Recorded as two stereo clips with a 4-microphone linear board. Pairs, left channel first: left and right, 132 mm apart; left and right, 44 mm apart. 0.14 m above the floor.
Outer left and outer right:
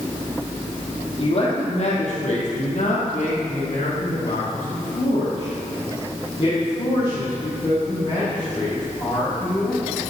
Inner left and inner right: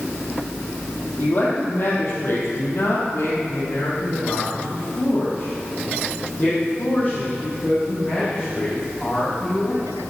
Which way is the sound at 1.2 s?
50° left (ahead or behind).